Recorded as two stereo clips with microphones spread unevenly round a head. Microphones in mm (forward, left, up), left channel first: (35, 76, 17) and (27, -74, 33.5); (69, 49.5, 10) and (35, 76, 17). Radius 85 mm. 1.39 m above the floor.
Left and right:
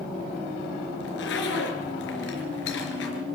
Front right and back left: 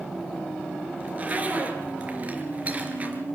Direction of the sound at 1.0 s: 95° left.